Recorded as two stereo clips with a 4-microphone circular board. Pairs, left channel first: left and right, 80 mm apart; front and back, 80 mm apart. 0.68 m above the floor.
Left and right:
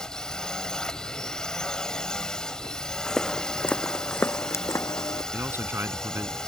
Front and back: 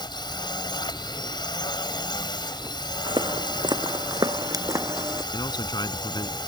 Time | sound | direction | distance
0.0 | a drone | 10° left | ?
3.1 | footsteps | 175° left | ?
5.3 | a man speaking | 30° right | ?